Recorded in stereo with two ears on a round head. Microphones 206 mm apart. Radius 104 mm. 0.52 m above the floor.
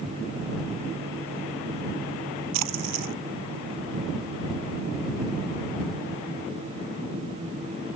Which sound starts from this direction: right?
A splash, at 2.5 s.